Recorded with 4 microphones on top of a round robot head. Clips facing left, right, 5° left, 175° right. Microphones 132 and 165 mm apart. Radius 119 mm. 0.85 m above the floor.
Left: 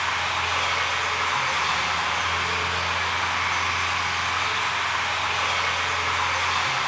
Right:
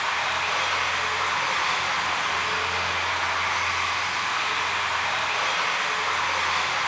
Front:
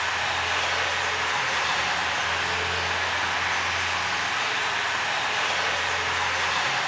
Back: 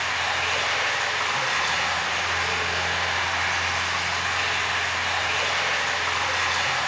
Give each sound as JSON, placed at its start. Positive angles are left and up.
{"t": 0.0, "sound": "running water", "azimuth_deg": -170, "distance_m": 2.0}